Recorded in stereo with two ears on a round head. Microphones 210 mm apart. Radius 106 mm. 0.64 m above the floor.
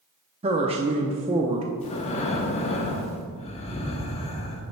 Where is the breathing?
25° left (ahead or behind), 0.8 m.